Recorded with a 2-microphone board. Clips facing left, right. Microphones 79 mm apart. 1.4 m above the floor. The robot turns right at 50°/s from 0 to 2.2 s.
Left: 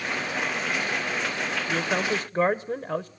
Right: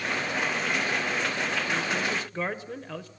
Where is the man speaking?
50° left (ahead or behind), 0.8 m; by 3.1 s 25° left (ahead or behind), 0.8 m.